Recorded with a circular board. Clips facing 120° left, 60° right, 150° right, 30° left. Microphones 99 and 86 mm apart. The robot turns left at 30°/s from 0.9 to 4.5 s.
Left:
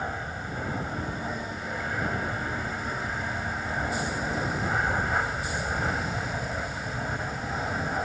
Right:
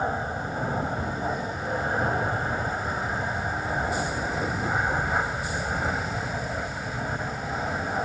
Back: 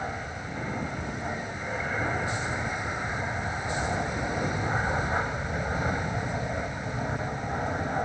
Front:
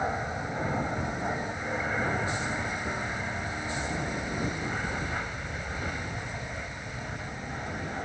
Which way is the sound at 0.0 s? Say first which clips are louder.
Right 5 dB, front 4 dB; 25° right.